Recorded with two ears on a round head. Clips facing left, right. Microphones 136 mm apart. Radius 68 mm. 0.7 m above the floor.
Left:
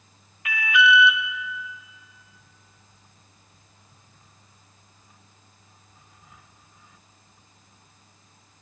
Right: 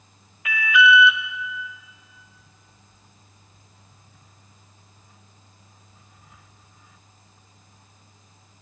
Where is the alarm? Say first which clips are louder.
Right 2 dB; 75° right (ahead or behind), 0.6 m.